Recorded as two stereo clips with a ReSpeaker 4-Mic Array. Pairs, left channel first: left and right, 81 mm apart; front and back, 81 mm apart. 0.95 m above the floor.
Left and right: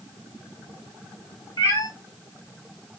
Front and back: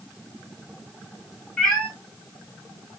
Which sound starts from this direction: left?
A cat meowing, at 1.6 s.